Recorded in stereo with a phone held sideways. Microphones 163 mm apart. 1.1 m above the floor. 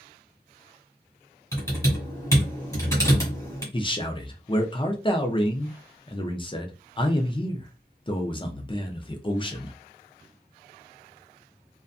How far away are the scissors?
No scissors in this recording.